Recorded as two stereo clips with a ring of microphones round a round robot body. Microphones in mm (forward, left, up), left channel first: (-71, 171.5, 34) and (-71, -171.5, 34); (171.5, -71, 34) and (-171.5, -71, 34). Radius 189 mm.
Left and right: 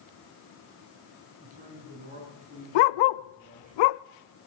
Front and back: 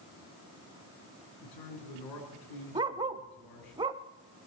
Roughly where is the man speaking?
Ahead.